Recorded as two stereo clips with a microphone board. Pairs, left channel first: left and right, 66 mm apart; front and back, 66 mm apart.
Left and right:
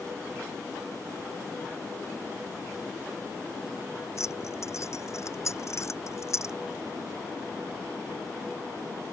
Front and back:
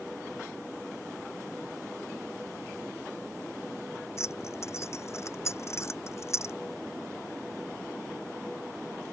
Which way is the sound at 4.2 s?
45° left.